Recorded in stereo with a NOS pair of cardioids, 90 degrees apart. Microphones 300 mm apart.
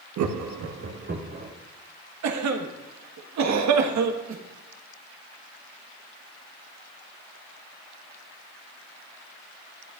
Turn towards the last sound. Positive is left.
turn(degrees=-65)